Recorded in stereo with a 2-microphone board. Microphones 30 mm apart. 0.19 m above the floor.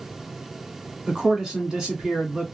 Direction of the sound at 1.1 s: 20° right (ahead or behind).